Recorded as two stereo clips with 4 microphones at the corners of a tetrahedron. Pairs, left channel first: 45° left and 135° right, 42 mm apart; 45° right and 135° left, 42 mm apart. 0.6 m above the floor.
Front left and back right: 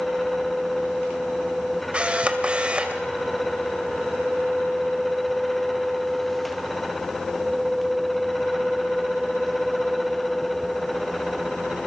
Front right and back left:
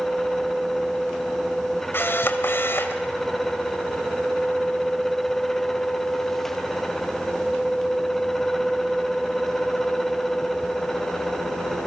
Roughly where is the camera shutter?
Right.